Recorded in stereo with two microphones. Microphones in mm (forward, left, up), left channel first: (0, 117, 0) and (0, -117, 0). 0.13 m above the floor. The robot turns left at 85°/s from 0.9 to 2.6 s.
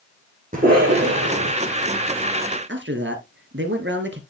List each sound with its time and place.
0.5 s a cough: 35° right, 5 m; by 1.5 s 90° right, 5 m
2.7 s a man speaking: 55° right (ahead or behind), 1.8 m